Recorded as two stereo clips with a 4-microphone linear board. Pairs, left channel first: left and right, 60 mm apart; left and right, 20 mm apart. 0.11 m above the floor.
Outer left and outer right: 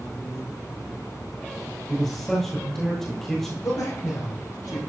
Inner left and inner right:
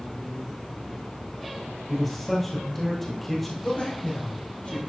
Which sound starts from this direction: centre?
A man speaking, at 1.9 s.